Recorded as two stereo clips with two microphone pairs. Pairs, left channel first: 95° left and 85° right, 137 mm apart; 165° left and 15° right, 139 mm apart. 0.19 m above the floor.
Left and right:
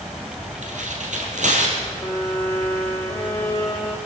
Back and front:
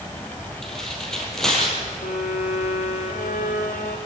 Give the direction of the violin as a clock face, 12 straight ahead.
6 o'clock.